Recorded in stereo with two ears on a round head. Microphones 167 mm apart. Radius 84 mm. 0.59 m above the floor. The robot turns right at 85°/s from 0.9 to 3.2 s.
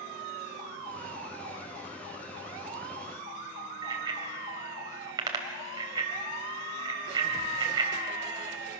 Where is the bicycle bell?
20° right (ahead or behind), 2.5 m.